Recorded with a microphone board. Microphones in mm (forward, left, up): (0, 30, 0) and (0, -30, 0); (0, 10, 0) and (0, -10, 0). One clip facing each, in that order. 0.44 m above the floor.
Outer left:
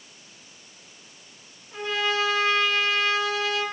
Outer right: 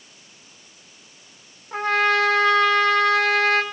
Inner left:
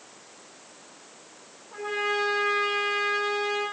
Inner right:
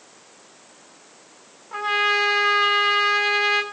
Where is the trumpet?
55° right (ahead or behind), 3 m.